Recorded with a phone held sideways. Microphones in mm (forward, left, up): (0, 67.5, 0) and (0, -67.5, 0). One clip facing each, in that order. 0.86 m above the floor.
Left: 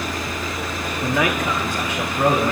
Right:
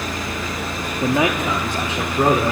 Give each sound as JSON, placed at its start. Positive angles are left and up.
{"t": 1.0, "sound": "a man speaking", "side_deg": -25, "distance_m": 1.7}